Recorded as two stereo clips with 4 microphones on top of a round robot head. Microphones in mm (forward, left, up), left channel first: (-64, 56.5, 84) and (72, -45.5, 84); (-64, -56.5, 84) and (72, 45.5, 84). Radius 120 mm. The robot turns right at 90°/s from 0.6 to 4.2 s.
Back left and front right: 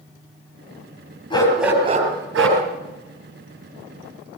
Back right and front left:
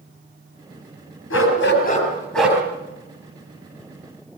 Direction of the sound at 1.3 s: 155° right.